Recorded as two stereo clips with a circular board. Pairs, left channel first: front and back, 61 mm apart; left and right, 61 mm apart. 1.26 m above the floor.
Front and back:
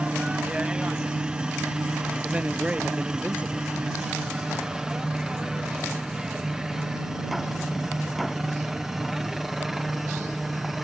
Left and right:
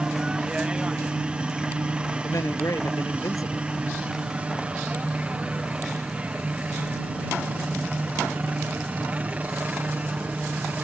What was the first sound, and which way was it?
A helicopter, 135° right.